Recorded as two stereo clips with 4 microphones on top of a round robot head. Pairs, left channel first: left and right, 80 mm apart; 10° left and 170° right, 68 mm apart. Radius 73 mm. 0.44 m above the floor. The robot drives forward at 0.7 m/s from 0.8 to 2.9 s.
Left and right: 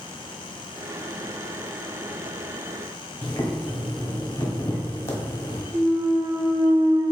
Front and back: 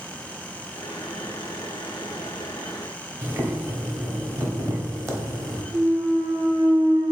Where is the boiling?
145° left, 0.9 m.